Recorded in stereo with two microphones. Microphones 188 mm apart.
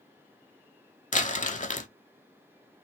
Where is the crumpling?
40° left (ahead or behind), 0.5 m.